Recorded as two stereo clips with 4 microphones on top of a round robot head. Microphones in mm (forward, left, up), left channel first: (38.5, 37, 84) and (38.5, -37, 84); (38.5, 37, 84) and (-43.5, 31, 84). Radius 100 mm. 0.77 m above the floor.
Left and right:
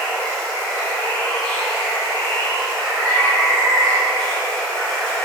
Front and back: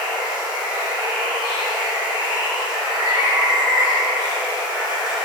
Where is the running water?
170° left, 1.5 m.